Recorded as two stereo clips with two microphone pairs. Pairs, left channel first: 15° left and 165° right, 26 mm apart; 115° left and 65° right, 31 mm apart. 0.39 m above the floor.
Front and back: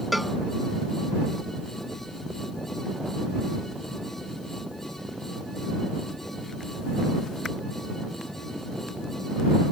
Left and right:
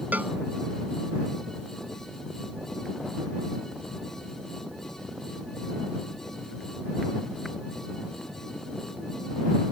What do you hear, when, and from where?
0.1 s a cowbell: 80° right